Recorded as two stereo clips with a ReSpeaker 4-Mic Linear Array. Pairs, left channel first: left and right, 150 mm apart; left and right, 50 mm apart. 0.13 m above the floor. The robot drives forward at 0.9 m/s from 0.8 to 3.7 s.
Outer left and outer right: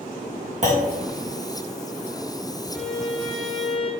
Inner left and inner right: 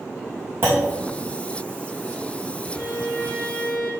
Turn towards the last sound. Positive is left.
turn(degrees=5)  # may be behind; listen again after turning